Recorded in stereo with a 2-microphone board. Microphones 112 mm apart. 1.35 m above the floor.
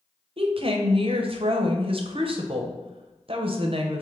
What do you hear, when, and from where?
0.4 s a woman speaking: 55° right (ahead or behind), 0.6 m